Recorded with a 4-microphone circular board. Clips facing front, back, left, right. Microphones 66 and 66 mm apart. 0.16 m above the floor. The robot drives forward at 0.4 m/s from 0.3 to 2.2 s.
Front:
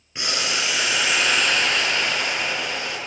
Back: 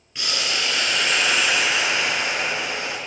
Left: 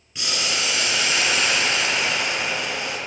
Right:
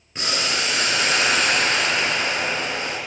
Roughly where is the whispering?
No whispering in this recording.